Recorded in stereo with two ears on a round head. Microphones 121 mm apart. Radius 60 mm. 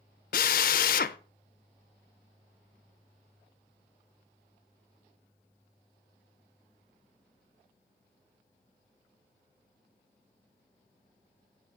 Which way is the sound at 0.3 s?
70° left (ahead or behind).